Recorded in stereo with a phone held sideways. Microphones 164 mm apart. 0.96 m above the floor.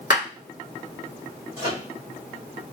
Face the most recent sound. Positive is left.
turn(degrees=55)  # may be behind; listen again after turning